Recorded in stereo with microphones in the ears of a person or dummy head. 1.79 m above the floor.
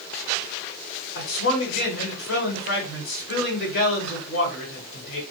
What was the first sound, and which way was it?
A man speaking, 70° left (ahead or behind).